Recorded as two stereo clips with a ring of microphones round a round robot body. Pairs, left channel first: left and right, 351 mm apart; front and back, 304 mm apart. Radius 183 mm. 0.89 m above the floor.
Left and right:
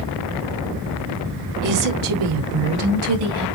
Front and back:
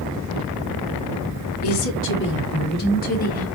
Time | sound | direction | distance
1.6 | a woman speaking | 50° right | 2.5 m